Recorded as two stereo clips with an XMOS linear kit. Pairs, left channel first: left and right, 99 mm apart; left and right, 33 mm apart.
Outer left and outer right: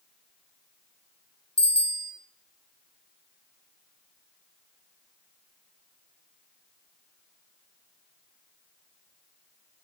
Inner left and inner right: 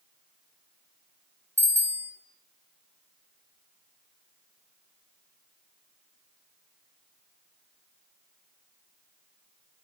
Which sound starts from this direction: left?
A bicycle bell, at 1.6 s.